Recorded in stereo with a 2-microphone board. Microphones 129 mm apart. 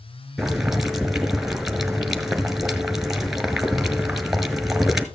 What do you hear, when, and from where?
0.4 s boiling: centre (ahead or behind), 1.5 m